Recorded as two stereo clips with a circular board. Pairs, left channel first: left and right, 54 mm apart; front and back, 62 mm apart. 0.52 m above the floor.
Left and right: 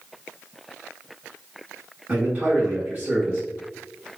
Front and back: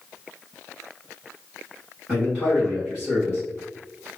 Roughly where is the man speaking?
Behind right.